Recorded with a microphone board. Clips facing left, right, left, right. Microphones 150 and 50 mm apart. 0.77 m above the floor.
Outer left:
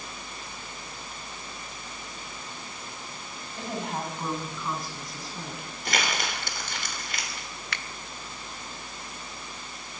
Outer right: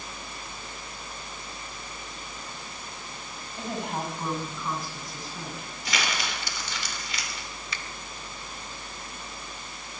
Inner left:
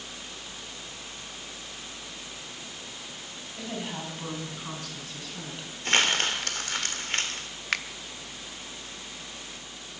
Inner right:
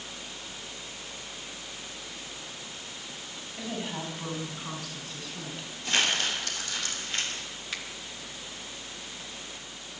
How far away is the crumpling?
About 3 m.